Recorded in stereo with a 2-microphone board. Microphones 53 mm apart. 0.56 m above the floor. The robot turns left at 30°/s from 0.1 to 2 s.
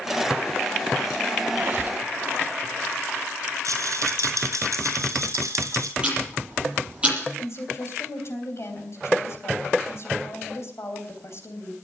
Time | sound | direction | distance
1.5 | a squeak | 40° right (ahead or behind) | 0.7 m
3.6 | a rattle | 80° right | 3.5 m
6.0 | ticking | 20° right (ahead or behind) | 7.5 m
7.4 | a woman speaking | 55° left (ahead or behind) | 3.5 m